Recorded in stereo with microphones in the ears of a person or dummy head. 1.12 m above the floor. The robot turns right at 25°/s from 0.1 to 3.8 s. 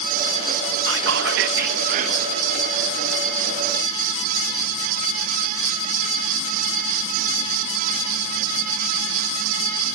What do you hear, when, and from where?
0.9 s whispering: 85° right, 1.0 m; by 2.3 s 50° right, 1.0 m